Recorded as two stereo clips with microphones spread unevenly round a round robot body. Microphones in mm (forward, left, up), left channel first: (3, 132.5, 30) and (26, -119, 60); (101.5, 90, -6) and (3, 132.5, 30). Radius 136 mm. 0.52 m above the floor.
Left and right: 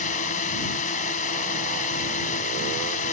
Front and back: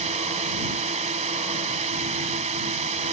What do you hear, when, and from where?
0.0 s a drone: 155° left